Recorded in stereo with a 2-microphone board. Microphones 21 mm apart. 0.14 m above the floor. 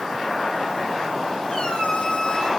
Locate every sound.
1.5 s a squeak: 50° left (ahead or behind), 4 m